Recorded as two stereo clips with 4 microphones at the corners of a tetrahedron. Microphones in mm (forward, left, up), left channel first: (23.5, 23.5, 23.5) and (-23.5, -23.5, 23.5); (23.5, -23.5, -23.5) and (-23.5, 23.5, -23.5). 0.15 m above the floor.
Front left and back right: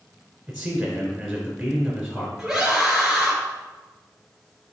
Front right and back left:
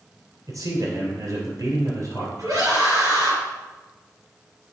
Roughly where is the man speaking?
Behind left.